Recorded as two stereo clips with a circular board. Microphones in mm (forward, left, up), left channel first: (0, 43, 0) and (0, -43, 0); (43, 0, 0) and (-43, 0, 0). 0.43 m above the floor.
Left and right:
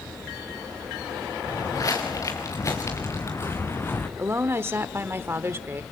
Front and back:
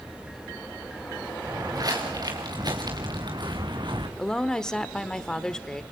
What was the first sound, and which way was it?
Footsteps, 135° left.